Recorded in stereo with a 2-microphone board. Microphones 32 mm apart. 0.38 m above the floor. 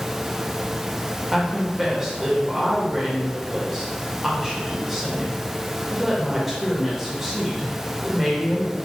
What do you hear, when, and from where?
1.3 s a woman speaking: 5° right (ahead or behind), 1.0 m